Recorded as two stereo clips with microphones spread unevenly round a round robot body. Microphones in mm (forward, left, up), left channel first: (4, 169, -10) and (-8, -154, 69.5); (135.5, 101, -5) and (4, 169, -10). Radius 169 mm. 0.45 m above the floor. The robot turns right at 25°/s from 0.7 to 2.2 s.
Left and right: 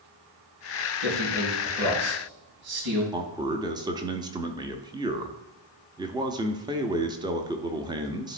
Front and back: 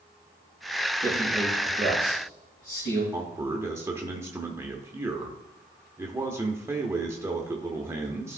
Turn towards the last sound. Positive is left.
turn(degrees=175)